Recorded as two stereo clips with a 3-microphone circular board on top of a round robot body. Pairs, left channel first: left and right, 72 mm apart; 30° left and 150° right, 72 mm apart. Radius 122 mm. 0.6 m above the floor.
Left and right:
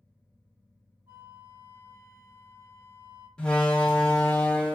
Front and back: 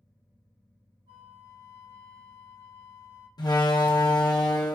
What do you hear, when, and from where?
1.1 s a flute: 140° right, 2.5 m
3.4 s a door slam: 10° left, 0.9 m